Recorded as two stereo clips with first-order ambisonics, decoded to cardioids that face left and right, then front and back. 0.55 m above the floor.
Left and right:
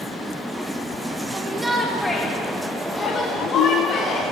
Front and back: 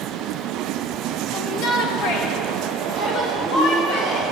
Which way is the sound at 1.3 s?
30° right.